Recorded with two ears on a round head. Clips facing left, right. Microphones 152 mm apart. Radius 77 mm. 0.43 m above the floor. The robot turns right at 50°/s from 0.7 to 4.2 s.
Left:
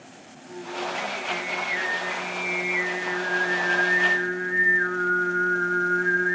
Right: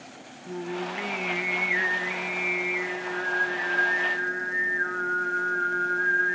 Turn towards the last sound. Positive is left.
turn(degrees=75)